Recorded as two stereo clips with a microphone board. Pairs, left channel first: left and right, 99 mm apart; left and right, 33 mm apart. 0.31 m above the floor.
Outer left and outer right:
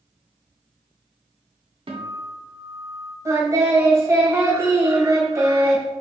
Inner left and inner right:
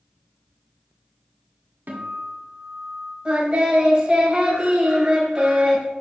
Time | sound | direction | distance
1.9 | a guitar | 65° right (ahead or behind) | 1.5 m
3.2 | singing | 30° right (ahead or behind) | 1.8 m